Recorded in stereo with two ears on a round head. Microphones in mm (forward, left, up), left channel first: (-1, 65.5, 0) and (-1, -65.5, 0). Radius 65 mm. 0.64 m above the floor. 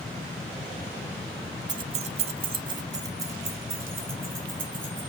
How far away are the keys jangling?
About 0.8 m.